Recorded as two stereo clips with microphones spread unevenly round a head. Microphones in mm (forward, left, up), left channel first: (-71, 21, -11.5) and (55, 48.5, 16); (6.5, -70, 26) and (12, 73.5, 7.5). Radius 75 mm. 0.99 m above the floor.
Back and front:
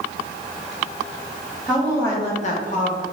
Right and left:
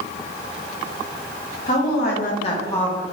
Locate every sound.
1.7 s a woman speaking: 75° right, 1.3 m; by 3.0 s straight behind, 1.4 m